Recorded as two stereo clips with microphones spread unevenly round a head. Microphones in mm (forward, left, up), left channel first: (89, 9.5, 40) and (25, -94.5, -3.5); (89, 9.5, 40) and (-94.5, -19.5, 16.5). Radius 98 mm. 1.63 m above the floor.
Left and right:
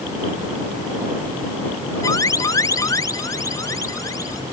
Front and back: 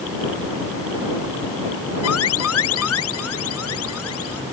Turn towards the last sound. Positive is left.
turn(degrees=-5)